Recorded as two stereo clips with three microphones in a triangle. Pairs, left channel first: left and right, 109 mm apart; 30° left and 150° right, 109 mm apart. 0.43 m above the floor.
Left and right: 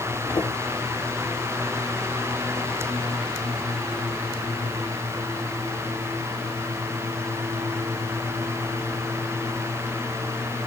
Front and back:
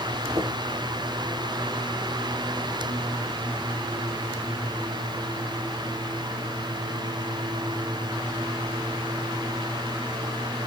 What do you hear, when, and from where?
0.3 s footsteps: 150° left, 7.5 m